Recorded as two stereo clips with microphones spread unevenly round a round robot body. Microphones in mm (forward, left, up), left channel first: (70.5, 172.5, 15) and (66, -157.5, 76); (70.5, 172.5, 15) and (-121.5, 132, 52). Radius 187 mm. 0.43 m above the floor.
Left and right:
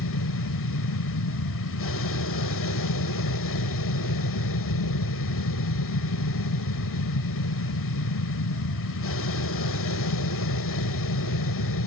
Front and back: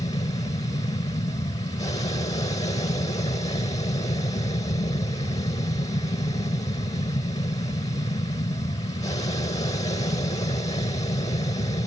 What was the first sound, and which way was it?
An aircraft, 70° left.